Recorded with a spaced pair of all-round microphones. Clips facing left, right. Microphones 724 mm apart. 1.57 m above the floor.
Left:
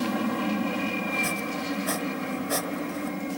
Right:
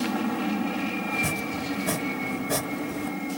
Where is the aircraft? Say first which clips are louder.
Even; 5° left (ahead or behind).